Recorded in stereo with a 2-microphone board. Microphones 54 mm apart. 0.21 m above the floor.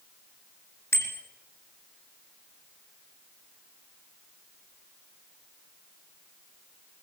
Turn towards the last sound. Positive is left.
turn(degrees=60)  # may be behind; listen again after turning